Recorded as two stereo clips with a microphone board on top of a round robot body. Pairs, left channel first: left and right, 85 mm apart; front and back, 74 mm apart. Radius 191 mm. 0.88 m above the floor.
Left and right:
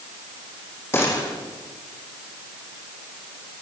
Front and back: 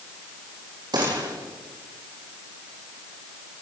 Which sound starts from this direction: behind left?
A gunshot, at 0.9 s.